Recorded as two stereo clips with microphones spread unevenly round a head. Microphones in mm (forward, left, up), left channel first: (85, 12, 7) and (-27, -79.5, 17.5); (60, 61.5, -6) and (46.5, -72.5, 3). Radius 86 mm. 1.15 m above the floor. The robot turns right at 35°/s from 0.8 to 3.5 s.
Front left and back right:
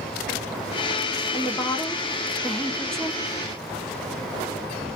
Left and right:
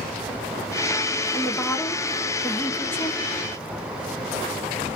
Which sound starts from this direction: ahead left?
A woman speaking, at 1.3 s.